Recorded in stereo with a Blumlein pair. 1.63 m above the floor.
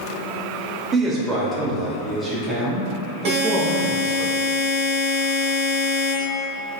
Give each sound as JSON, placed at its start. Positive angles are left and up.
{"t": 0.9, "sound": "a man speaking", "azimuth_deg": -20, "distance_m": 0.8}
{"t": 3.2, "sound": "a buzzer", "azimuth_deg": -45, "distance_m": 0.8}